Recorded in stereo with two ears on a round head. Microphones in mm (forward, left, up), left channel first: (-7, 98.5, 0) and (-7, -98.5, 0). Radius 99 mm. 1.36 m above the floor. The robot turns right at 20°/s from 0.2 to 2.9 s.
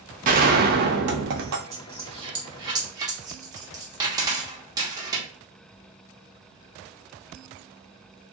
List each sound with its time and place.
0.2 s a gunshot: 40° right (ahead or behind), 0.7 m; by 1.6 s 60° right (ahead or behind), 0.7 m
1.7 s a dropped coin: 30° right (ahead or behind), 0.9 m; by 5.3 s 15° right (ahead or behind), 0.9 m